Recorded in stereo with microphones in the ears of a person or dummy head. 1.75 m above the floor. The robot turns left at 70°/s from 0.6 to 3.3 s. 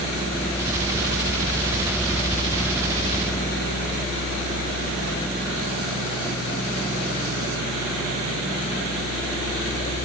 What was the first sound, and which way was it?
Only background noise.